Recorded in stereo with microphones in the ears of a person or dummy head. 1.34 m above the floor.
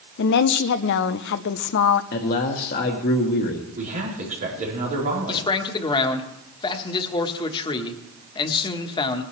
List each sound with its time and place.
0.2 s a woman speaking: 65° left (ahead or behind), 0.6 m
2.1 s a man speaking: 55° left (ahead or behind), 1.5 m
3.8 s a man speaking: 40° right (ahead or behind), 4 m
5.3 s a man speaking: 30° left (ahead or behind), 1.3 m